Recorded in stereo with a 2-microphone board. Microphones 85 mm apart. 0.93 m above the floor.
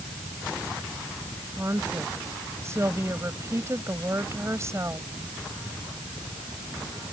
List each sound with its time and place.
1.6 s a woman speaking: 35° right (ahead or behind)